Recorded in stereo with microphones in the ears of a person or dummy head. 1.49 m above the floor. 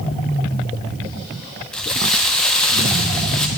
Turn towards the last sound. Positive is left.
turn(degrees=5)  # may be behind; listen again after turning